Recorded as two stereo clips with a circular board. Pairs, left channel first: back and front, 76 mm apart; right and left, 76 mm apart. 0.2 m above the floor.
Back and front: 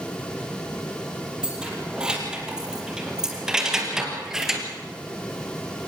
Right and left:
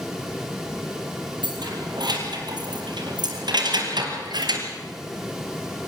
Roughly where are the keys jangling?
Left.